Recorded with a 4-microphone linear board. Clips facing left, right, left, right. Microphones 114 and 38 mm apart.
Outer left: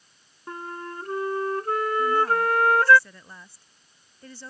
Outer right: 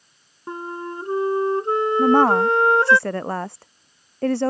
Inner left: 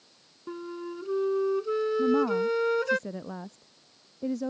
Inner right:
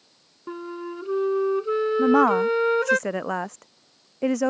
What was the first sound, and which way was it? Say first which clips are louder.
A flute: outer right 5 dB, inner right 4 dB; 25° right (ahead or behind).